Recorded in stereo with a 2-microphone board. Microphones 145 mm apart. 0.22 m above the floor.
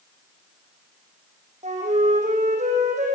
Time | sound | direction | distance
1.6 | a flute | 55° right (ahead or behind) | 5 m